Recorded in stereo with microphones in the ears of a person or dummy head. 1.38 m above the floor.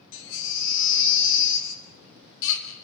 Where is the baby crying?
75° left (ahead or behind), 3 m.